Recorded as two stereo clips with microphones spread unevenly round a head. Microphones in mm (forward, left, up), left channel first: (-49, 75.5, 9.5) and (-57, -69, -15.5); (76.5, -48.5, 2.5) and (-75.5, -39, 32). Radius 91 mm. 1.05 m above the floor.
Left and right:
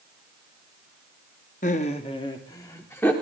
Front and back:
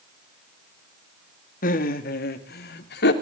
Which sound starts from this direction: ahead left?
Laughter, at 1.6 s.